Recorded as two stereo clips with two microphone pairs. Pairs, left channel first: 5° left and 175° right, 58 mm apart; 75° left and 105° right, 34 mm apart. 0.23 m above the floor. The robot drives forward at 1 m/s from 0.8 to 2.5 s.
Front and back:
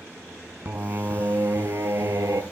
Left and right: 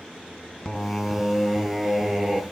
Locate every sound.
0.7 s singing: 140° left, 0.9 m; by 2.4 s 170° left, 2.5 m